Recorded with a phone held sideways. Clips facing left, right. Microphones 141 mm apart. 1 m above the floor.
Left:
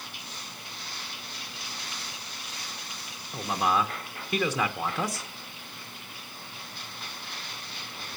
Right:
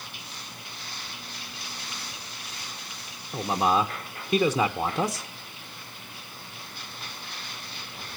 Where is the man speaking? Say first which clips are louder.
Right 3 dB; 20° right (ahead or behind), 0.9 m.